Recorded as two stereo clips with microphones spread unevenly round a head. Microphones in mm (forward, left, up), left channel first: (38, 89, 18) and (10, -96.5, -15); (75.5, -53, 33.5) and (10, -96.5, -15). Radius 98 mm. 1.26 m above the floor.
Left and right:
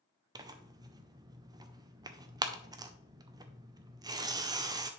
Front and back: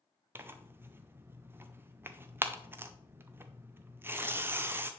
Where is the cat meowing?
I don't hear a cat meowing.